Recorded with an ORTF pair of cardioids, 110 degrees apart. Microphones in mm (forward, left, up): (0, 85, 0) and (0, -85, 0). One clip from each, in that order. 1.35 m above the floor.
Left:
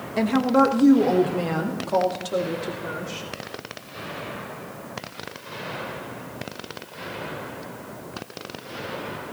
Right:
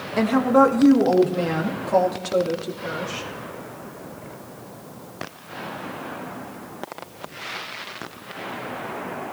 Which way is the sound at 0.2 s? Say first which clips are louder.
Right 3 dB; 10° right.